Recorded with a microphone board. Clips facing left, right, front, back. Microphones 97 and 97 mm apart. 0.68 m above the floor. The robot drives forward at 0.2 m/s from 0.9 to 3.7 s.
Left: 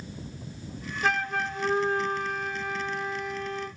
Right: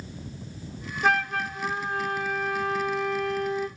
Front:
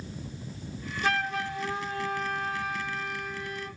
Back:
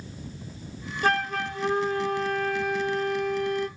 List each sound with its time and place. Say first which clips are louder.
1.0 s a flute: right 3 dB, back 4 dB; straight behind, 1.0 m